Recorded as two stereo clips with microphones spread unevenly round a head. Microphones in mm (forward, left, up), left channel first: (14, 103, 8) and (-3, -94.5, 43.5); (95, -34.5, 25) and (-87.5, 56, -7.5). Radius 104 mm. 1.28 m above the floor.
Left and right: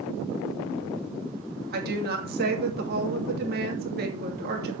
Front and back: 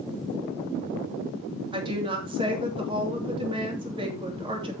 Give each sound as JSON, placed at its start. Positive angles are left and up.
{"t": 1.7, "sound": "a woman speaking", "azimuth_deg": -140, "distance_m": 2.5}